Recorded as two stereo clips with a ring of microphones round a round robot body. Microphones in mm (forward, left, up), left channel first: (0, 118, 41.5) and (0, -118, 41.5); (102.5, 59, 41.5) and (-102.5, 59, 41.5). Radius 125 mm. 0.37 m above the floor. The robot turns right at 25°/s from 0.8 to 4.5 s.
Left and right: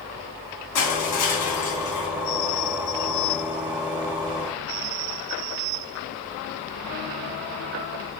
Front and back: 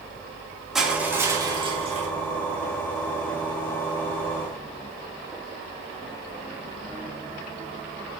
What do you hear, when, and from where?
0.8 s crushing: 90° left, 2.5 m; by 2.1 s 125° left, 2.5 m